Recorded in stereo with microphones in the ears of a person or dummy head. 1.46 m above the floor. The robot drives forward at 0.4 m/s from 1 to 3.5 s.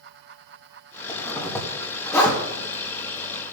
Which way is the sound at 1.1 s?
15° left (ahead or behind).